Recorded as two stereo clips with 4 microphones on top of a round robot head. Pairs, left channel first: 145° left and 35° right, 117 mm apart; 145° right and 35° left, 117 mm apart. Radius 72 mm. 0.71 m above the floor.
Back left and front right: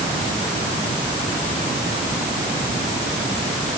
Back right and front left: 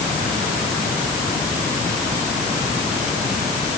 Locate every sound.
Only background noise.